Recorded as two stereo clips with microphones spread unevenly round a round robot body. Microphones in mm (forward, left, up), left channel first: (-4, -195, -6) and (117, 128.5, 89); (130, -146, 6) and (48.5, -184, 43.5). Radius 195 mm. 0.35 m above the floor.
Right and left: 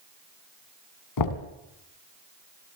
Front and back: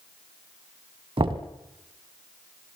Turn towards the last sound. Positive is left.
turn(degrees=-120)